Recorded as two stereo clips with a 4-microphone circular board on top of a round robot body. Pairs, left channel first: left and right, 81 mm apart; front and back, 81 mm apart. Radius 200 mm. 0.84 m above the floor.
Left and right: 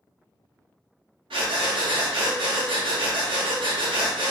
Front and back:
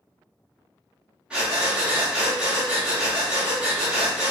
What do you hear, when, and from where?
1.3 s breathing: 105° right, 0.8 m